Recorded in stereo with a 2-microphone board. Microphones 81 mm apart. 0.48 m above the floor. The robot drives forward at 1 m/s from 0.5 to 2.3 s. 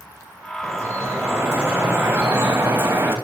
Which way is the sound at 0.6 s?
35° right (ahead or behind).